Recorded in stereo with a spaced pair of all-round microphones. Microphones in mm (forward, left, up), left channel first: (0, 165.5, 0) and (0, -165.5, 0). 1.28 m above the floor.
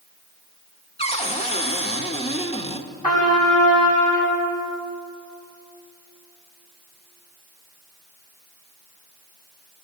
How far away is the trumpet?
About 7.5 m.